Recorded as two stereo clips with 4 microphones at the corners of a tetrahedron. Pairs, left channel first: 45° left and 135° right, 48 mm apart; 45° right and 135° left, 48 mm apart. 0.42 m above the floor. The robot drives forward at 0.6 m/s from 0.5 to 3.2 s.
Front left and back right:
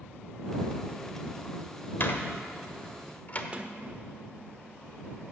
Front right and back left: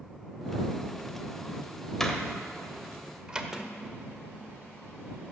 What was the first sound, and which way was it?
A door slam, 35° left.